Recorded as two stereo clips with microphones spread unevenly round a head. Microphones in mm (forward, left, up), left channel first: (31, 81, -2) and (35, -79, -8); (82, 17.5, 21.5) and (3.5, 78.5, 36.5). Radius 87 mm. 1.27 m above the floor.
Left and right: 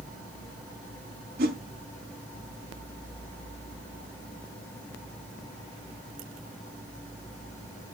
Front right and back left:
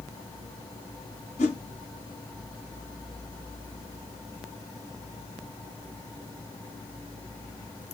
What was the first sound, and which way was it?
A whoosh, 60° right.